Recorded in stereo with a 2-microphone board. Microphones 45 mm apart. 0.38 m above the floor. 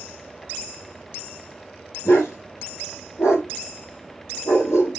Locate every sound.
2.0 s a dog barking: 85° left, 5 m